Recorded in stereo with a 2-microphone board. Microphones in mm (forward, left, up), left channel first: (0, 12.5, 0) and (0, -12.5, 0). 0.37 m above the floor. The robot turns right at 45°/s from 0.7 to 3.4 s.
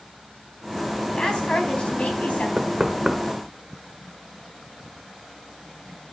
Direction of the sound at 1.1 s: 35° left.